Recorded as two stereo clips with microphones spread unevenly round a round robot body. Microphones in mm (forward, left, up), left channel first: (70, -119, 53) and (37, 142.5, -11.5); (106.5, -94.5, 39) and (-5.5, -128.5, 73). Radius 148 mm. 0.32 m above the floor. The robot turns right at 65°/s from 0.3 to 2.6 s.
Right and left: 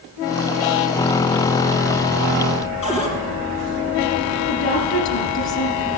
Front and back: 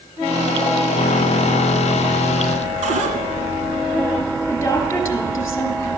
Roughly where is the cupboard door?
Behind right.